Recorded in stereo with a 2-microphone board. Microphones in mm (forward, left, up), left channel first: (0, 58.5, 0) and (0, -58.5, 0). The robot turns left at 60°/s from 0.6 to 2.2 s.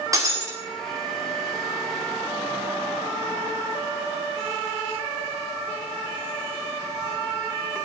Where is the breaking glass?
30° right (ahead or behind), 5.5 m.